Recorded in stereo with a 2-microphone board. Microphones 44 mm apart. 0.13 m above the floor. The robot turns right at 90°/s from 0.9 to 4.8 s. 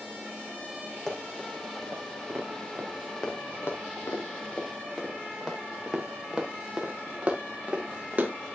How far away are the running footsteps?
About 4 m.